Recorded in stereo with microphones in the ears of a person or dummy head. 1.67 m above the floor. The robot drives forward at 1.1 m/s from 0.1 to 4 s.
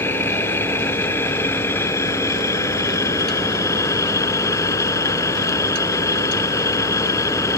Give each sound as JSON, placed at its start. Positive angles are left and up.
{"t": 0.0, "sound": "an engine running", "side_deg": 15}